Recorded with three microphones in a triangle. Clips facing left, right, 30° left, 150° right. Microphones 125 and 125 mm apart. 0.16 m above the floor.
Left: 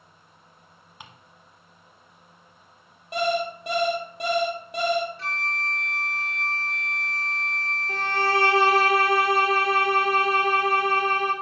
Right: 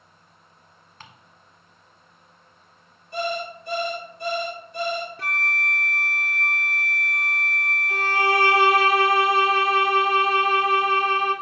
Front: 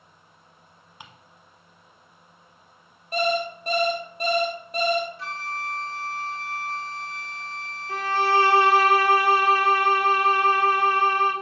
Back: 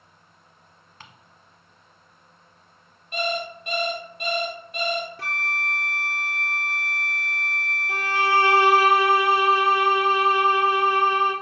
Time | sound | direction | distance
1.0 | ticking | 55° left | 0.9 m
3.1 | an alarm clock | 80° left | 1.8 m
5.2 | a flute | 125° right | 0.6 m
7.9 | a violin | 135° left | 1.8 m